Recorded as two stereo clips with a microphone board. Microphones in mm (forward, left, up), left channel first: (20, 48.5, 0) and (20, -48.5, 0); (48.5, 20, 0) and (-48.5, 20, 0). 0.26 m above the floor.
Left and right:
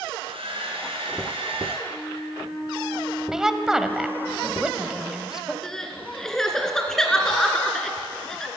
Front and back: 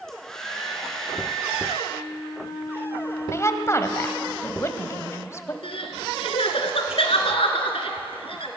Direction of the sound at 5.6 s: 5° left.